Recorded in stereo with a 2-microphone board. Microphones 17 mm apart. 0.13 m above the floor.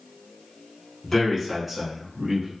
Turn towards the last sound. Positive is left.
turn(degrees=-35)  # may be behind; listen again after turning